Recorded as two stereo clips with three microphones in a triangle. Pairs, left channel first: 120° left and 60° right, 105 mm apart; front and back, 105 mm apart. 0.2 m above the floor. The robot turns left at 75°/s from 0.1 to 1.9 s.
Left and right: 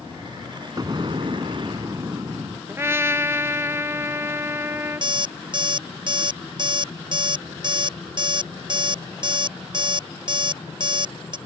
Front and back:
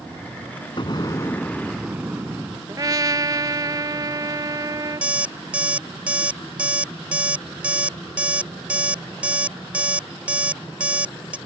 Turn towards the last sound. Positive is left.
turn(degrees=-100)